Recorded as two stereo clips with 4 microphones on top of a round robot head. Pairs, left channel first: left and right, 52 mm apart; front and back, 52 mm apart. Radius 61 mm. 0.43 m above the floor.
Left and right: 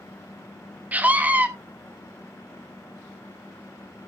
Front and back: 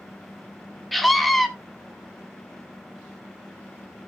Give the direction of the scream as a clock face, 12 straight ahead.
3 o'clock.